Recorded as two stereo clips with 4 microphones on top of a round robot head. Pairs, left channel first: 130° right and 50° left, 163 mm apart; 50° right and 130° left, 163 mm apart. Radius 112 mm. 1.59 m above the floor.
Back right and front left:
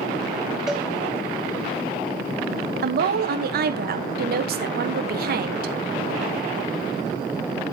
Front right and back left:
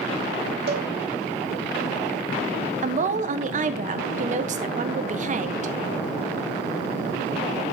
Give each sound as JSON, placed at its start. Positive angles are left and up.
{"t": 0.7, "sound": "a cowbell", "azimuth_deg": 140, "distance_m": 1.4}
{"t": 2.8, "sound": "a woman speaking", "azimuth_deg": 85, "distance_m": 1.3}